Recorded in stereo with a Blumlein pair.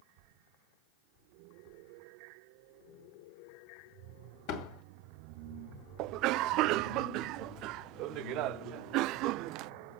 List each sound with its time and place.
4.5 s a door slam: 45° left, 2.5 m
6.0 s a cough: 40° right, 0.6 m